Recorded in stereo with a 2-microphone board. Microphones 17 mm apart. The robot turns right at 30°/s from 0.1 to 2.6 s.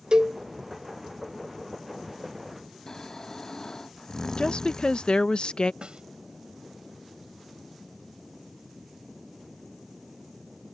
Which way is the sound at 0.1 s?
55° right (ahead or behind).